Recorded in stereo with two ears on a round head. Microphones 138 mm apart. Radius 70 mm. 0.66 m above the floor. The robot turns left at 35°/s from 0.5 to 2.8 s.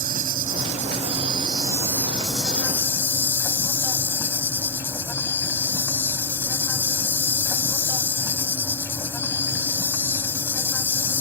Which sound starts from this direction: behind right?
An insect, at 0.0 s.